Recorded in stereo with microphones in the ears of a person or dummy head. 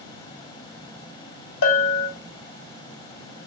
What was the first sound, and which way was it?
A bell, 80° left.